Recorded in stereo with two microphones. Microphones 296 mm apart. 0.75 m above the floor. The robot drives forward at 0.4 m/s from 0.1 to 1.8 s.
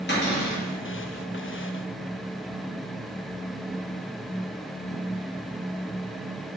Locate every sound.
0.1 s a cupboard door: 35° left (ahead or behind), 1.1 m; by 0.6 s 40° left (ahead or behind), 1.0 m